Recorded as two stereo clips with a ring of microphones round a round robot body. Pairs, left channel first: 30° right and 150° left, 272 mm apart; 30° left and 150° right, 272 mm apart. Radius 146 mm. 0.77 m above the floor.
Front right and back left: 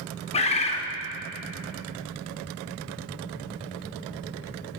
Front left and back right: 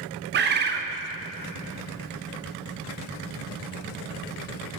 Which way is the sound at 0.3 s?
95° right.